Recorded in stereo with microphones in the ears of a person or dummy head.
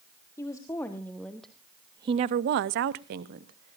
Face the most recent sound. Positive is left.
turn(degrees=-45)  # may be behind; listen again after turning